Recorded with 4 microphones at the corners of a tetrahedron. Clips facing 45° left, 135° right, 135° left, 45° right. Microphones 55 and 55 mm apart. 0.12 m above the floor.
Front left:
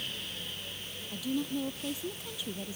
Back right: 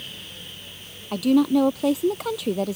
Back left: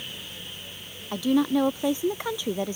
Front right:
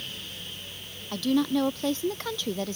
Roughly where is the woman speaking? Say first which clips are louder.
Back right 15 dB, back left 2 dB; behind right.